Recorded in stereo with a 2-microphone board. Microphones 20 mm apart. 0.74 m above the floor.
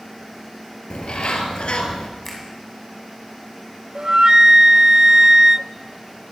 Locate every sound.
0.9 s a bird: 65° left (ahead or behind), 3.5 m
2.2 s a finger snap: 15° left (ahead or behind), 6.5 m
4.0 s a flute: 40° right (ahead or behind), 0.5 m